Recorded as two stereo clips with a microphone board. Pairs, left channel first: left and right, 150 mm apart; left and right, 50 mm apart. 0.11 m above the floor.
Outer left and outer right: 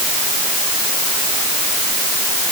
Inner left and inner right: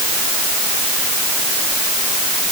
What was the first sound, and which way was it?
Only background noise.